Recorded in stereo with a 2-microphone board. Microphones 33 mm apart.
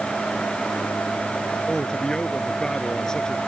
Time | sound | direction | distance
1.7 | a man speaking | 20° left (ahead or behind) | ?